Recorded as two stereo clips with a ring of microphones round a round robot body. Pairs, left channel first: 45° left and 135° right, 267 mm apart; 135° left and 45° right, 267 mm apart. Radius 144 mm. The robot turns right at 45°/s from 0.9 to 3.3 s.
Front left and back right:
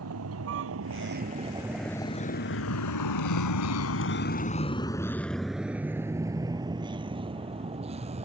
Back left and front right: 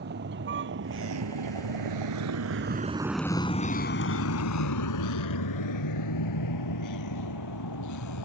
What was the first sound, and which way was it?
A vehicle, 100° right.